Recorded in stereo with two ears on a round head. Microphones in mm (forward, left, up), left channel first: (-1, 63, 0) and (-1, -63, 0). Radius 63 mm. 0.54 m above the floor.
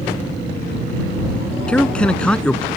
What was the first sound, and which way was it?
A man speaking, 5° left (ahead or behind).